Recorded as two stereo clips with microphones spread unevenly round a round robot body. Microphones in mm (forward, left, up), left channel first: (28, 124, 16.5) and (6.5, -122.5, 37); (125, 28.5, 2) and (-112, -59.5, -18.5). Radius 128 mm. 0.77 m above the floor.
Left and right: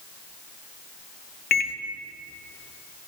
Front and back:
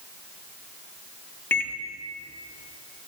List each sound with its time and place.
1.5 s a microwave: 105° left, 0.6 m